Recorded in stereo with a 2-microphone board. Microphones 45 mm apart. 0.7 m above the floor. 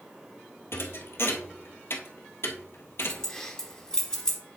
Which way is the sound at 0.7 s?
65° left (ahead or behind).